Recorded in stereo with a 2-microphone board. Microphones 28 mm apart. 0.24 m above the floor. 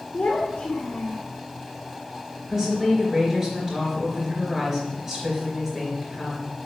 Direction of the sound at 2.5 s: 15° right (ahead or behind).